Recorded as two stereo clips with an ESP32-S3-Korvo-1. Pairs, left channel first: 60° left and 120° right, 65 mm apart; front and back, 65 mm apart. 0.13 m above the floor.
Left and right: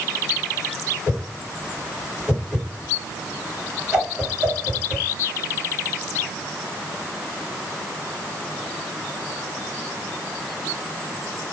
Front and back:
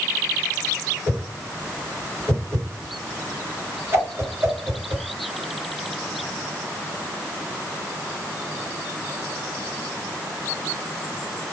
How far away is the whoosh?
About 2 m.